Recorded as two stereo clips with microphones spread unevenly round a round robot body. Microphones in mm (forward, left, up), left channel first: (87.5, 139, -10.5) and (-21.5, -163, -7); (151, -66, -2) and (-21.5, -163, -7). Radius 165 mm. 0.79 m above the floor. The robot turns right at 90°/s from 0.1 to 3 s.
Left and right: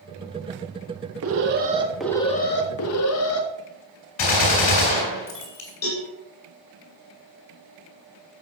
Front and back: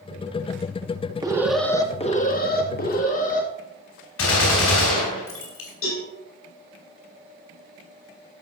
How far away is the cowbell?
About 7.5 m.